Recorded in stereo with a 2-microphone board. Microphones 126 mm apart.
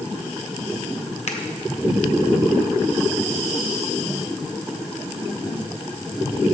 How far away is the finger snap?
About 0.8 m.